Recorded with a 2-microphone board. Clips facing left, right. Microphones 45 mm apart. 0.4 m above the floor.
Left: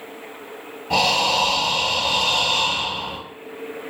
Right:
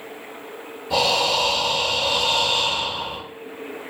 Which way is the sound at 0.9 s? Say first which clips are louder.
Left 1 dB; 55° left (ahead or behind).